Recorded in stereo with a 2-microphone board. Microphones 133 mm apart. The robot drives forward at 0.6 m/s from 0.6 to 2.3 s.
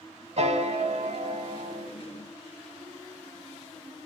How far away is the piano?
About 1.0 m.